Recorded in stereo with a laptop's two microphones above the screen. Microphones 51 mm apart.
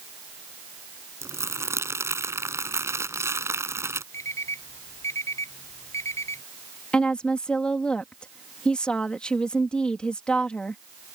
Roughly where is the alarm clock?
Left.